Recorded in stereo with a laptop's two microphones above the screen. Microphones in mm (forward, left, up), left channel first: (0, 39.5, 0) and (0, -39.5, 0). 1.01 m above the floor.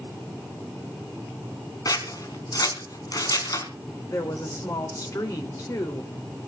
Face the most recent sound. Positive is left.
turn(degrees=45)  # may be behind; listen again after turning